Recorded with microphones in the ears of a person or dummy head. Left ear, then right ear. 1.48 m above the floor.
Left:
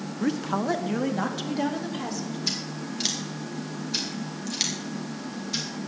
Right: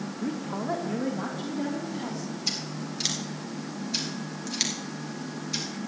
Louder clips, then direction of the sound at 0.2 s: Left 6 dB; 65° left (ahead or behind).